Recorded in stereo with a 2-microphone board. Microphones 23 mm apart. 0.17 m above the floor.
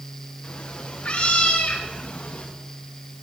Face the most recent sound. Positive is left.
turn(degrees=85)